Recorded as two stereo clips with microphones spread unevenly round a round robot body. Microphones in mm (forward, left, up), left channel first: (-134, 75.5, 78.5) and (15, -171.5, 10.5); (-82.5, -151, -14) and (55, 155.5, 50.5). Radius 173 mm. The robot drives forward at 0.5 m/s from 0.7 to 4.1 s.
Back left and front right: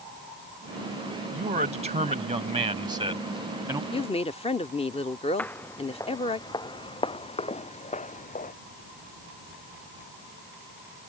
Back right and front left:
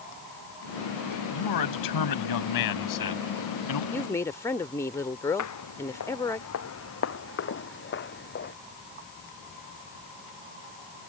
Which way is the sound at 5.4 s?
155° right.